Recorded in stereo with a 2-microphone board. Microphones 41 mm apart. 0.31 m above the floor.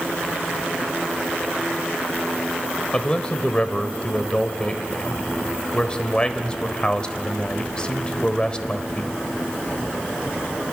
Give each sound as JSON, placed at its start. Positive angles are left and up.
{"t": 2.9, "sound": "a man speaking", "side_deg": 20, "distance_m": 1.0}